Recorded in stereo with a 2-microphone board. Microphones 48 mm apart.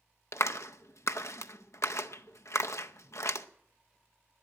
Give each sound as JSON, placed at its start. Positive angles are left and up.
{"t": 0.3, "sound": "a clap", "side_deg": 70, "distance_m": 0.6}